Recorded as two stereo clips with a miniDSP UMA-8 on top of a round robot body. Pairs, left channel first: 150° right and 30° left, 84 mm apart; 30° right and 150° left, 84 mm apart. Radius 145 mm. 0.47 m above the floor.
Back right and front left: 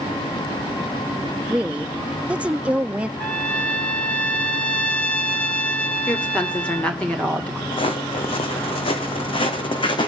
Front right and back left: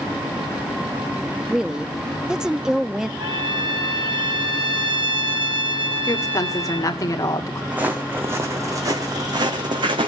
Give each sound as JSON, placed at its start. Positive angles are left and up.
{"t": 1.5, "sound": "a woman speaking", "azimuth_deg": 80, "distance_m": 0.8}
{"t": 3.2, "sound": "a trumpet", "azimuth_deg": 135, "distance_m": 3.0}
{"t": 6.1, "sound": "a woman speaking", "azimuth_deg": -75, "distance_m": 2.5}
{"t": 7.7, "sound": "footsteps", "azimuth_deg": -135, "distance_m": 1.9}